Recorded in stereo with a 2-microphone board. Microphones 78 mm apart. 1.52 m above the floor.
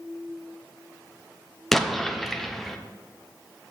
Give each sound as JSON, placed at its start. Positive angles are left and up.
{"t": 1.7, "sound": "an explosion", "side_deg": 5, "distance_m": 0.7}